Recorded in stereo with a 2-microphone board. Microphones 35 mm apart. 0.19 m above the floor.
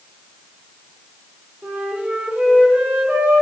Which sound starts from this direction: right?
A flute, at 1.6 s.